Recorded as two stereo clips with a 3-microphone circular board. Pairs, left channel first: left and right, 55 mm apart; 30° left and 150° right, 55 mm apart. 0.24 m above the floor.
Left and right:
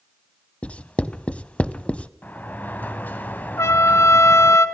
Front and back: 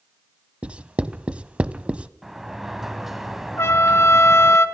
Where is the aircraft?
No aircraft in this recording.